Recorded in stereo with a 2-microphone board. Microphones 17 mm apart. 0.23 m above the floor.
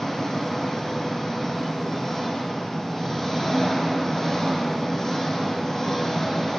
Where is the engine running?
30° left (ahead or behind), 6 m.